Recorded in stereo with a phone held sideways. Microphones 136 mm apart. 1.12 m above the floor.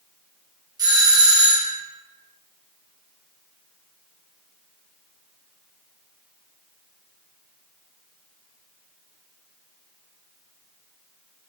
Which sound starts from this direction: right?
A doorbell, at 0.8 s.